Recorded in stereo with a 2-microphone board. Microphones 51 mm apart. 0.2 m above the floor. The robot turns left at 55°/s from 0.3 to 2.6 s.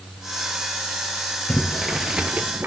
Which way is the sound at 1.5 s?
20° left (ahead or behind).